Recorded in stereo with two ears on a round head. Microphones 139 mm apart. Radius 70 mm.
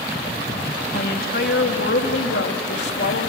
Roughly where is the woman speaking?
Left.